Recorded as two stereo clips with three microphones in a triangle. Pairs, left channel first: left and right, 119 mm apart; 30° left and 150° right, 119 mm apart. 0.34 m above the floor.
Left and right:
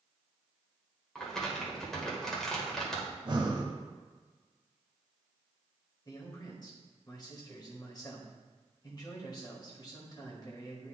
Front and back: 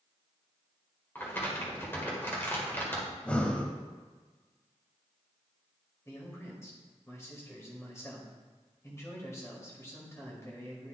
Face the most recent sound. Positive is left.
turn(degrees=75)